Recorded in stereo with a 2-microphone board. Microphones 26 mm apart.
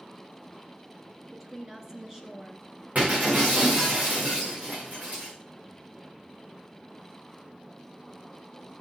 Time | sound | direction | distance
1.3 | a woman speaking | 20° right (ahead or behind) | 1.8 m
3.0 | breaking glass | 70° right (ahead or behind) | 7 m